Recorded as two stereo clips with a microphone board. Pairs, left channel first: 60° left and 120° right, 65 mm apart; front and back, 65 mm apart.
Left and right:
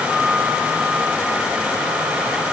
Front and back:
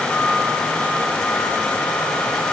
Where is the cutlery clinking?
No cutlery clinking in this recording.